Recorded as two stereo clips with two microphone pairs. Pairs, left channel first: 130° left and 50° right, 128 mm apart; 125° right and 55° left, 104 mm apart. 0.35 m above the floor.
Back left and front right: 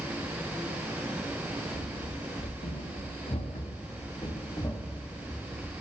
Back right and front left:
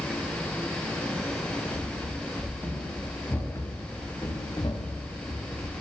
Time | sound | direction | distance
1.7 | running footsteps | 150° left | 3.5 m